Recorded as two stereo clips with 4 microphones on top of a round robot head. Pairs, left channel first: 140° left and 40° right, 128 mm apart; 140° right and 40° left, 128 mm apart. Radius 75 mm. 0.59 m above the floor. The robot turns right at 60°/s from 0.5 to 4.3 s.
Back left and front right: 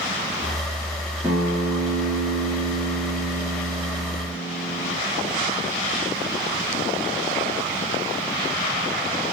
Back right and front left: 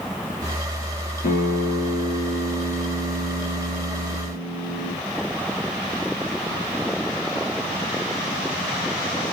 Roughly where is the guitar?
Behind right.